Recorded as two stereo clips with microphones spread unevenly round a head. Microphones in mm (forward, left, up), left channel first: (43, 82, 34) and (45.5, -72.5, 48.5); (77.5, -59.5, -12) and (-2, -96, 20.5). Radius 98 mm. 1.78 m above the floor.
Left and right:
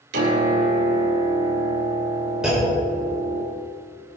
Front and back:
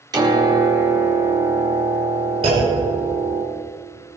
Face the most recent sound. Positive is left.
turn(degrees=-175)